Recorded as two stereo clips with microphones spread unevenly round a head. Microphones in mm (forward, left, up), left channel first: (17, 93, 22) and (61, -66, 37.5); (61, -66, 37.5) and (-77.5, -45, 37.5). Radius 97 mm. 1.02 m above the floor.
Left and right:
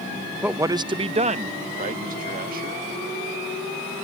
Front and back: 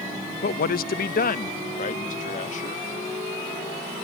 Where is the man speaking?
10° left; by 2.9 s 40° right.